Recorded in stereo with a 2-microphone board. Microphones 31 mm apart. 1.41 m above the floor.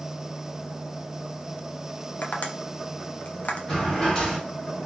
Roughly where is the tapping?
Left.